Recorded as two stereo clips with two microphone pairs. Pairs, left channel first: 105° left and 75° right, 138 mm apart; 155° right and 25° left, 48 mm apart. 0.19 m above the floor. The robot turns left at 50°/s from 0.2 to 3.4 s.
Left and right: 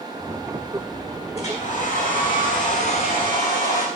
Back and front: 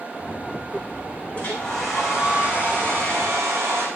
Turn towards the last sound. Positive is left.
turn(degrees=40)